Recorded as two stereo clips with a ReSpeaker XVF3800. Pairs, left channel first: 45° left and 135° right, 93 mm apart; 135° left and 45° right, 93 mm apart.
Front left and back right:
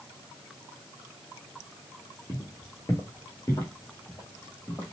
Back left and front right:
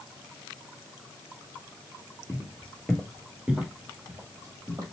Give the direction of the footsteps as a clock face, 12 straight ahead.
9 o'clock.